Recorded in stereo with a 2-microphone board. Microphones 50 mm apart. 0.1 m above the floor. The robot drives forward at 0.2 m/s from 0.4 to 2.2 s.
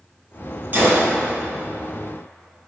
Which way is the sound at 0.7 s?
35° right (ahead or behind).